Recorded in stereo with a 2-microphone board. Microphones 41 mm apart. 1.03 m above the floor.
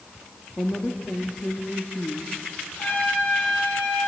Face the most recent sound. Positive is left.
turn(degrees=55)  # may be behind; listen again after turning